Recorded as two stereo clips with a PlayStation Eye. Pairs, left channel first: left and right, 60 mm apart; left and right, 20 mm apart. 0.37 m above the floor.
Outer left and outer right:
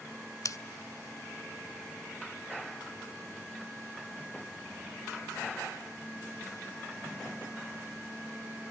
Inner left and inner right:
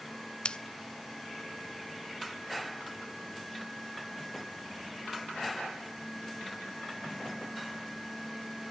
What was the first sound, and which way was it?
Scissors, 65° left (ahead or behind).